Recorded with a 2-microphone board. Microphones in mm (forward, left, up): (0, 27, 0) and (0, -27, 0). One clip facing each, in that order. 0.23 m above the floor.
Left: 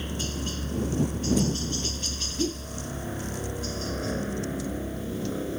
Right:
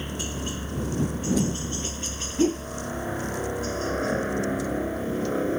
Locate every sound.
0.0 s a helicopter: 15° right (ahead or behind); by 5.6 s 40° right (ahead or behind)
2.4 s a whoosh: 45° right (ahead or behind)